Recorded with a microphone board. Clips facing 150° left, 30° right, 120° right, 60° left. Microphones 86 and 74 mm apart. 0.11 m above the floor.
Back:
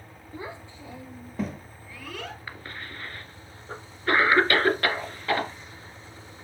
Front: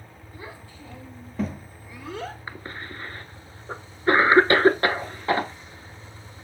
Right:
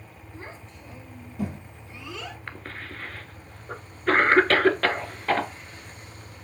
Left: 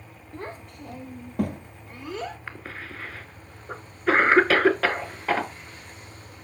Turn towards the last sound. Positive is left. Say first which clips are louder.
# front 3 dB, even
turn(degrees=-20)